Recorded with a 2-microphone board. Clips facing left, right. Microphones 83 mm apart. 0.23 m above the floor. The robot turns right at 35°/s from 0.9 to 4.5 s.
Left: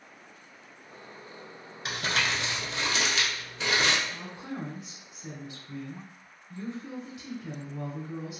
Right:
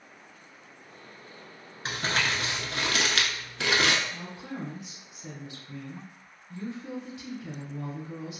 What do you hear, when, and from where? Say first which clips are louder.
1.9 s crumpling: right 1 dB; 35° right (ahead or behind), 0.8 m; by 4.0 s 70° right (ahead or behind), 0.8 m
4.1 s a woman speaking: even; 20° left (ahead or behind), 1.3 m; by 8.4 s 10° left (ahead or behind), 1.3 m